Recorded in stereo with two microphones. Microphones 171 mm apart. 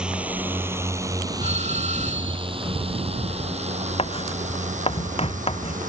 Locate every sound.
0.0 s a drone: 5° right (ahead or behind); by 5.9 s 50° right (ahead or behind)
1.4 s a doorbell: 40° right (ahead or behind)
4.0 s writing: 35° left (ahead or behind)